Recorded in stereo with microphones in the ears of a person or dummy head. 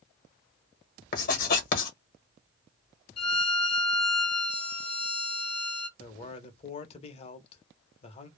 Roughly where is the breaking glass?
No breaking glass in this recording.